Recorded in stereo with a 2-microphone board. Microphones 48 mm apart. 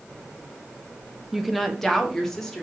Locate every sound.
1.3 s a woman speaking: 5° right (ahead or behind), 0.9 m; by 2.6 s 10° left (ahead or behind), 2.5 m